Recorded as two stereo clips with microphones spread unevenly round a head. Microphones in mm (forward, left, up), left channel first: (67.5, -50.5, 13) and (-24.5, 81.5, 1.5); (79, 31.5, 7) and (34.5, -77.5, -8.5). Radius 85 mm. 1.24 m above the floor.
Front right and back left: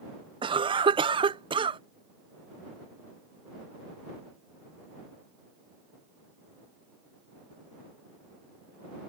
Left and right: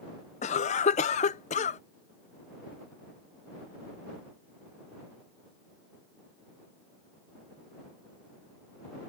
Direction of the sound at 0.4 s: 75° left.